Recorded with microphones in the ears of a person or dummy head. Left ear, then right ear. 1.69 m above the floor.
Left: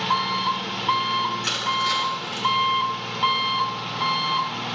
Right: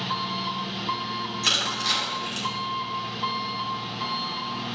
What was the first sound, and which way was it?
An engine running, 35° left (ahead or behind).